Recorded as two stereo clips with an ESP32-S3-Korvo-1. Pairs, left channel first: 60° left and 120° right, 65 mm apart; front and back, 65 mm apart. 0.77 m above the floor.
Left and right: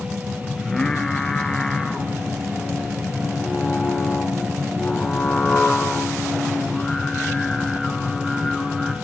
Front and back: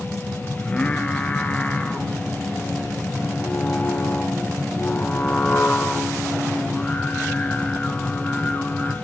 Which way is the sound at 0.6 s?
Straight ahead.